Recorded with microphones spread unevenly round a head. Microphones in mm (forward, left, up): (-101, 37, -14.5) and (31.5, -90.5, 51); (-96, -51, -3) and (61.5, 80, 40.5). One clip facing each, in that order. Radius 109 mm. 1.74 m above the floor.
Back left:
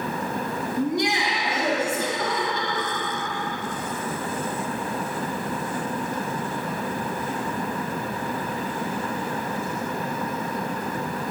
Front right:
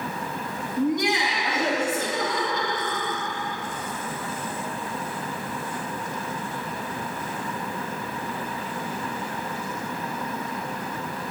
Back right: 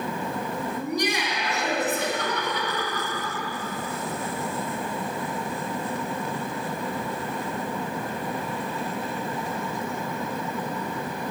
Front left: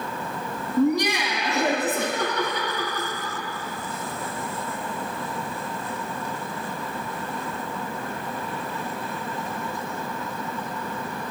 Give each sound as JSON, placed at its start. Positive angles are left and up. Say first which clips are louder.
{"t": 0.8, "sound": "laughter", "louder": "front right 2 dB, front left 9 dB", "azimuth_deg": 70, "distance_m": 2.5}